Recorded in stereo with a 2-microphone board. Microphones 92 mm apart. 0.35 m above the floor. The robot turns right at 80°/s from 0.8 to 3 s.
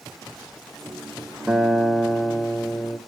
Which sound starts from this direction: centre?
A guitar, at 1.5 s.